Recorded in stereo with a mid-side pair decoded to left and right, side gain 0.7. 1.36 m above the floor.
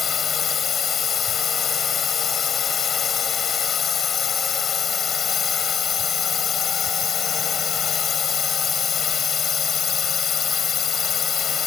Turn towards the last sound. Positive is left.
turn(degrees=30)